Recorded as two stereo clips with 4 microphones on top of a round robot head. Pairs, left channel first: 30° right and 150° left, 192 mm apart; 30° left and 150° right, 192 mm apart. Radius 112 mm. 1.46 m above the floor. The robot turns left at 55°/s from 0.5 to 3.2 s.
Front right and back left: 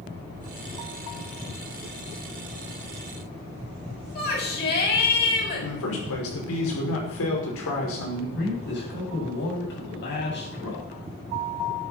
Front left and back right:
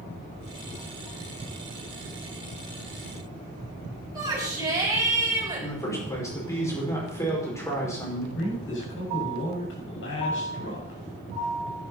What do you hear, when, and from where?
4.2 s a shout: 75° right, 7 m
5.6 s a man speaking: 45° right, 6 m
8.3 s a man speaking: 5° left, 8.5 m